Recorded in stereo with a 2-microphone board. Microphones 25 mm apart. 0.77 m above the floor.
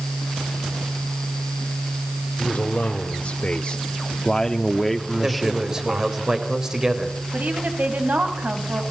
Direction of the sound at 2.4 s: 65° left (ahead or behind).